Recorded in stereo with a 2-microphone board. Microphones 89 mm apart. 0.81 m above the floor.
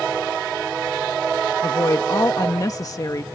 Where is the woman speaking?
40° left (ahead or behind).